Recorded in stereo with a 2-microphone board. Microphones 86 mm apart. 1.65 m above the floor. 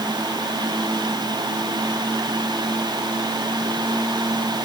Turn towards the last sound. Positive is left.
No sound to turn to.